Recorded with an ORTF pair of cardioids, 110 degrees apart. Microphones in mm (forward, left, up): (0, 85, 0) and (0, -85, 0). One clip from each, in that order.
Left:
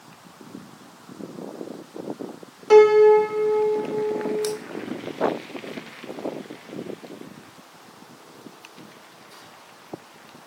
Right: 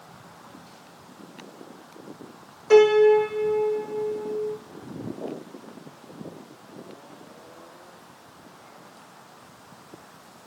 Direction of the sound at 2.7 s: 30° left.